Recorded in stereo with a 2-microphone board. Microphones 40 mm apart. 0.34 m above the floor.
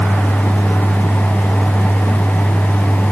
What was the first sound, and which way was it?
Only background noise.